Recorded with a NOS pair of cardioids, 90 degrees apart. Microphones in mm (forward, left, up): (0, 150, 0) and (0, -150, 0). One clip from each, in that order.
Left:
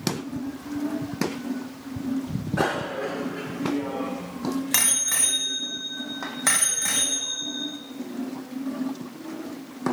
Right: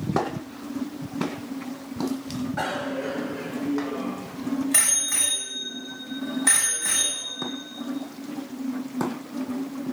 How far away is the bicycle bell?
About 3.5 m.